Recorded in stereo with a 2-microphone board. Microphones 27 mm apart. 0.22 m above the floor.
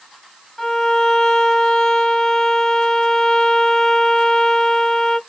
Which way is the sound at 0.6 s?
20° left (ahead or behind).